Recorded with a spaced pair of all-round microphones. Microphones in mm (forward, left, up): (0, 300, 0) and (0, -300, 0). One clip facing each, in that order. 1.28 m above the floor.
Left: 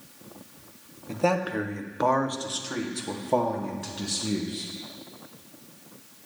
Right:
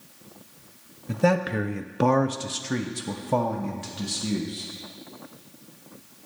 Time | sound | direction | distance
1.1 | a man speaking | 40° right (ahead or behind) | 0.9 m